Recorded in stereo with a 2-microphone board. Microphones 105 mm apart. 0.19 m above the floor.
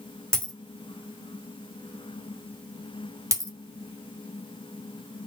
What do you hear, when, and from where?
0.3 s a dropped coin: 10° left (ahead or behind), 2 m
3.3 s a dropped coin: 30° right (ahead or behind), 0.6 m